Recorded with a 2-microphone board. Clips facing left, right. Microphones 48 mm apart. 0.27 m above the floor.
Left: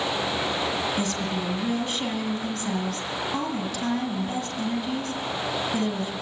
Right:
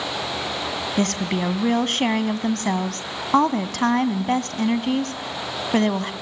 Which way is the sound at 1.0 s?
60° right (ahead or behind).